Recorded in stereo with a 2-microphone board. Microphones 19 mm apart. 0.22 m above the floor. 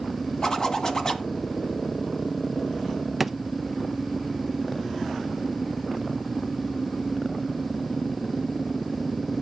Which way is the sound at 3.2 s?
5° right (ahead or behind).